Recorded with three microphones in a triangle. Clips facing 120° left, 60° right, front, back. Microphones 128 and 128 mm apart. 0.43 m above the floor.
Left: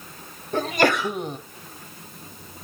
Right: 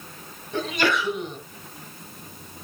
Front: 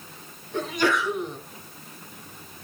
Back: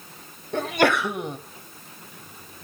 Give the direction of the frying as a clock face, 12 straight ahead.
I don't hear frying.